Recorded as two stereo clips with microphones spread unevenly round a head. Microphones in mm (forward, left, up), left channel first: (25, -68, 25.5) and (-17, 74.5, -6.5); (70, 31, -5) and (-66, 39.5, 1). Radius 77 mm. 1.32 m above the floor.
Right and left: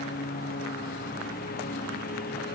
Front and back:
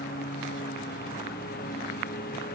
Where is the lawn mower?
45° right.